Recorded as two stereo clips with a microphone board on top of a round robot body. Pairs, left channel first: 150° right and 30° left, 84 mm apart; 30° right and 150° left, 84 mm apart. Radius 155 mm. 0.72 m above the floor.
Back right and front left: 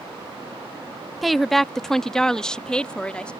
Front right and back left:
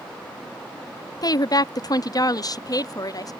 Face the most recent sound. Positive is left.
turn(degrees=-70)